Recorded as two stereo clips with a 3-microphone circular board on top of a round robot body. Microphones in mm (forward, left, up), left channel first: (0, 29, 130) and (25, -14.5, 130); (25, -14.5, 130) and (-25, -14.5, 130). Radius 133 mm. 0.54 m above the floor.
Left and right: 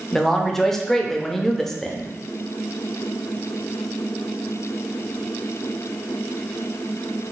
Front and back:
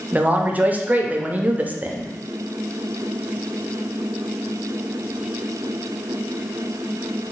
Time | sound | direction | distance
0.1 | a man speaking | 165° right | 0.7 m